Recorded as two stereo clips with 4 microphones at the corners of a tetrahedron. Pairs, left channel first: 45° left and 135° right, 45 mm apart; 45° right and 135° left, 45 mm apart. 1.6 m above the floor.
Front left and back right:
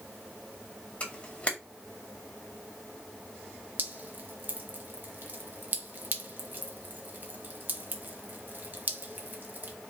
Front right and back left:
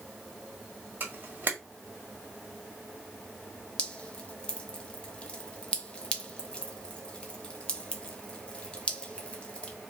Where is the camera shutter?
100° left, 1.6 m.